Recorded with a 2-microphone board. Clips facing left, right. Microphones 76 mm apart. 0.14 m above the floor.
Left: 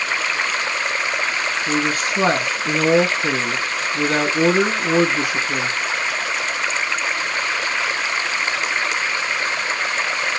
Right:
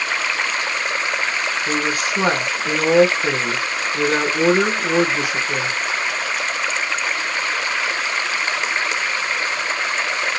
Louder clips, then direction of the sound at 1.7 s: Left 2 dB; 5° right (ahead or behind).